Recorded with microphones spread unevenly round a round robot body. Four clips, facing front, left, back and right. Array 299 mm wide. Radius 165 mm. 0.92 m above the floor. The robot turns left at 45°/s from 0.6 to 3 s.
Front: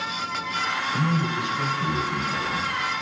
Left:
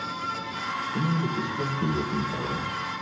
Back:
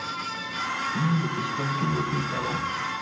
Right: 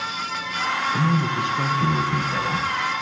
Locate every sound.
0.9 s a man speaking: 55° right, 4.5 m; by 2.7 s 135° right, 4.5 m